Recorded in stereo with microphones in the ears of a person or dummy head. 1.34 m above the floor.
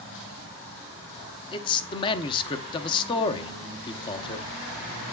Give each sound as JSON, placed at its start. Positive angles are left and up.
{"t": 1.5, "sound": "a man speaking", "side_deg": 25, "distance_m": 0.9}